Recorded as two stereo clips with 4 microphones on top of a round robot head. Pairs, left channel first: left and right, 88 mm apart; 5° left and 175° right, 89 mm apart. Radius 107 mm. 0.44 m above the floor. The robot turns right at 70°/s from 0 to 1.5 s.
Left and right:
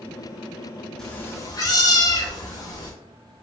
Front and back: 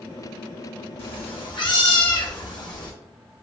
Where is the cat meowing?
5° left, 0.7 m; by 2.9 s 40° left, 0.7 m.